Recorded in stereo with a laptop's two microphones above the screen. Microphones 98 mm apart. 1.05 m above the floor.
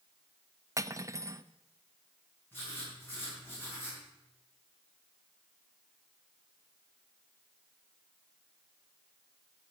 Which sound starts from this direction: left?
Writing, at 2.5 s.